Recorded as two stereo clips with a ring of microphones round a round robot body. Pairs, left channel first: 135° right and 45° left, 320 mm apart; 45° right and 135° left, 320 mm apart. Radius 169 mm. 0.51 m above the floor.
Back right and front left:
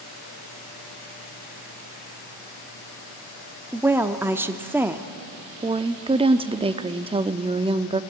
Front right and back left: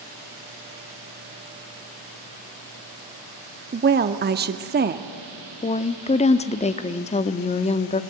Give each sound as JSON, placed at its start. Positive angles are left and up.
{"t": 3.7, "sound": "a woman speaking", "azimuth_deg": 120, "distance_m": 0.9}
{"t": 5.6, "sound": "a woman speaking", "azimuth_deg": -5, "distance_m": 0.8}